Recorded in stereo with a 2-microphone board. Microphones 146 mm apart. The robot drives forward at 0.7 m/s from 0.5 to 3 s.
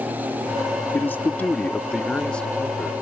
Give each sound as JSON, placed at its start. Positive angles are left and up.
{"t": 0.9, "sound": "a man speaking", "side_deg": 15}